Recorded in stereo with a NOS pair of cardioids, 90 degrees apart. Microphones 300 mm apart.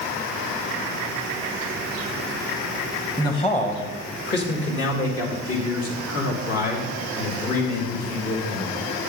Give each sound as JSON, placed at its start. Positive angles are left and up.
{"t": 3.2, "sound": "a man speaking", "azimuth_deg": 10, "distance_m": 1.3}